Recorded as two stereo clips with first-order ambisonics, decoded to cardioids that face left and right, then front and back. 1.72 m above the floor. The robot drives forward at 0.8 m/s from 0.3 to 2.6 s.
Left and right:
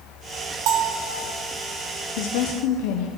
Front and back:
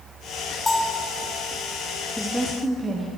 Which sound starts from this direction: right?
A bell, at 0.7 s.